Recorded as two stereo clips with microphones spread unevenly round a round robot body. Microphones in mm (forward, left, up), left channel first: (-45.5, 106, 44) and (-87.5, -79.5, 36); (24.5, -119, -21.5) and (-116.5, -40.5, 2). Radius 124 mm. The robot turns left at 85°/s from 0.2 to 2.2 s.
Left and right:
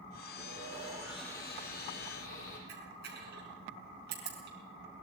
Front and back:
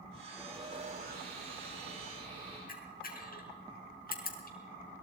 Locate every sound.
0.4 s sawing: 125° right, 10 m; by 2.6 s 80° left, 10 m
2.7 s a camera shutter: 55° right, 5 m